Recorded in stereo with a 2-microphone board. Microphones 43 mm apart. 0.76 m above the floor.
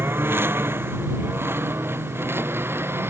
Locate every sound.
0.0 s a lawn mower: 60° right (ahead or behind); by 3.1 s 65° right (ahead or behind)